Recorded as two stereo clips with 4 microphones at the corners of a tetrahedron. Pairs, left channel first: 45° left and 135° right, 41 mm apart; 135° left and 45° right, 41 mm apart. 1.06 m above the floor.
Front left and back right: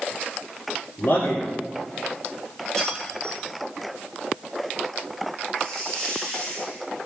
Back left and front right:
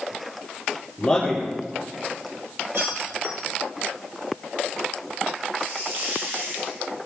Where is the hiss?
40° right, 5.5 m.